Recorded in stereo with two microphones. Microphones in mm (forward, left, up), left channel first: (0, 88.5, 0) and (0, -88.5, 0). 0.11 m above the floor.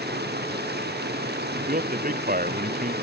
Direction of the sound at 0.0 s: 75° right (ahead or behind).